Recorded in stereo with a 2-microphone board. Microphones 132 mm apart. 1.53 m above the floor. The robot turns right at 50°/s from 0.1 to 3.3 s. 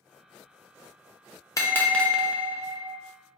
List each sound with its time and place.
1.6 s a bell: 150° left, 0.5 m; by 2.9 s 140° right, 0.5 m